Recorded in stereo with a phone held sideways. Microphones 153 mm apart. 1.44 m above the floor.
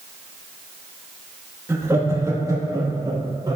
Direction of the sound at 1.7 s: 20° right (ahead or behind).